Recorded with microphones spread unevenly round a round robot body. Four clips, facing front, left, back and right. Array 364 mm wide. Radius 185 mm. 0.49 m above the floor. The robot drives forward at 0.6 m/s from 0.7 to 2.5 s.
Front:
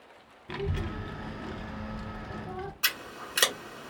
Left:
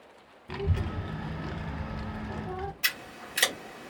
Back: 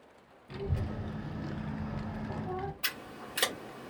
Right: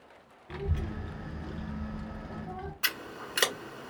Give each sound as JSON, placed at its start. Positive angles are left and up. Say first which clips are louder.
{"t": 0.5, "sound": "a child speaking", "louder": "left 3 dB, front 3 dB", "azimuth_deg": 50, "distance_m": 1.0}
{"t": 2.8, "sound": "scissors", "louder": "even, front 5 dB", "azimuth_deg": -90, "distance_m": 1.4}